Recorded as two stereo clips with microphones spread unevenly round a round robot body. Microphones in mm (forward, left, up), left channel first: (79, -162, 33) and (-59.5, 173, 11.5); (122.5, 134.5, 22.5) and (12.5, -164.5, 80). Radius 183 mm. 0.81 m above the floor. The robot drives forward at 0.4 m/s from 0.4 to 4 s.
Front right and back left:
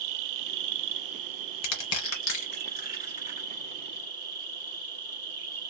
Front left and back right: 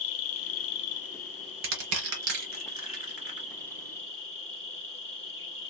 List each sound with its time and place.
0.0 s an insect: 95° left, 0.7 m; by 5.7 s 155° left, 1.7 m
1.6 s crushing: 90° right, 0.8 m; by 3.5 s 140° right, 1.1 m